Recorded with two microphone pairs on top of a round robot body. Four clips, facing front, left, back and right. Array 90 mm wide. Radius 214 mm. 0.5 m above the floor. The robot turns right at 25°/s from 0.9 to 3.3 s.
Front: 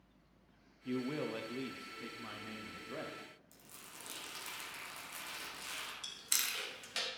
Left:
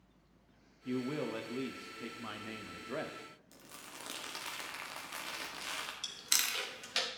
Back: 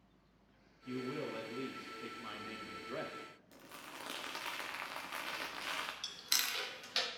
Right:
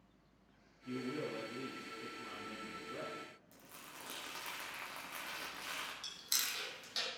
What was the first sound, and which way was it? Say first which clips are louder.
A man speaking: left 4 dB, front 3 dB; 50° left.